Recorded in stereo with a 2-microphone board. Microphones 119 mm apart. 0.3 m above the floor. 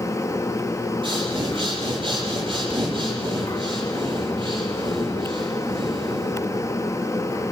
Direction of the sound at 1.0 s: 45° right (ahead or behind).